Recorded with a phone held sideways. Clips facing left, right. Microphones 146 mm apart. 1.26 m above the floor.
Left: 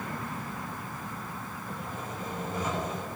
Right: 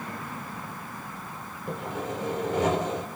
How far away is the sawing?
About 4.5 m.